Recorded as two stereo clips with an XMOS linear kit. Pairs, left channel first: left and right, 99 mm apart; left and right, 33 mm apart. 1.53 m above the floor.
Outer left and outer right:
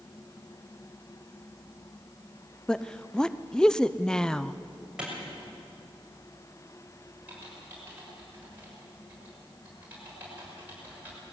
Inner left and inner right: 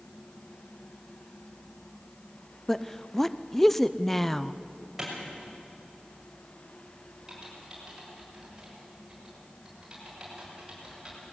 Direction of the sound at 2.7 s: 10° left (ahead or behind).